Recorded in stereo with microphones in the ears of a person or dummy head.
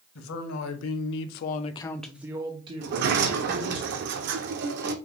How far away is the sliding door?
About 0.5 m.